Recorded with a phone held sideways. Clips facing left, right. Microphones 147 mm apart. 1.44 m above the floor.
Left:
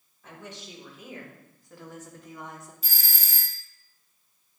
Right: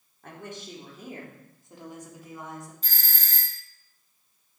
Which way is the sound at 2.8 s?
10° left (ahead or behind).